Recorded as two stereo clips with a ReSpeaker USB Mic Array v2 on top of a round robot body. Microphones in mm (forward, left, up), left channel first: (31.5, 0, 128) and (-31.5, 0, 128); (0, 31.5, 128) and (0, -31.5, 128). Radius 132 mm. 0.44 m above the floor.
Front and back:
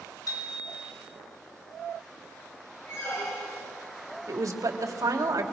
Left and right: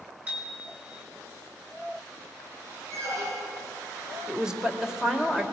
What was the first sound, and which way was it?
A bicycle bell, 25° right.